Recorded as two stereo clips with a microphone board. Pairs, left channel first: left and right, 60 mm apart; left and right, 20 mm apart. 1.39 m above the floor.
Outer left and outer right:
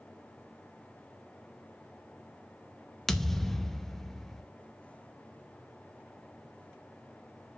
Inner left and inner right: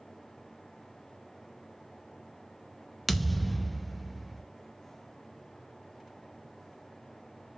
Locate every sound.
3.1 s a thud: 5° left (ahead or behind), 0.7 m